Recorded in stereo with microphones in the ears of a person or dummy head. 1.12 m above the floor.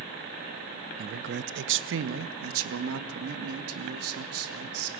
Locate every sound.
1.0 s a man speaking: 45° right (ahead or behind), 0.8 m; by 4.9 s 80° right, 3.5 m